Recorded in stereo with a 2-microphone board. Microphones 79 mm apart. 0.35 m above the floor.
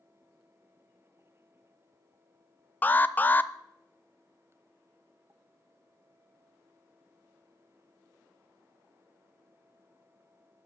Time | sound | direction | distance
2.8 | an alarm | 25° left (ahead or behind) | 0.6 m